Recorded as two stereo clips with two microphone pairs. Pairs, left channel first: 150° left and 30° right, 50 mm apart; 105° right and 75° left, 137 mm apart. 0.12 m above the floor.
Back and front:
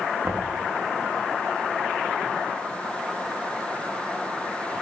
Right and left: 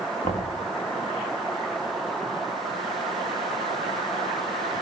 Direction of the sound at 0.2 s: 75° right.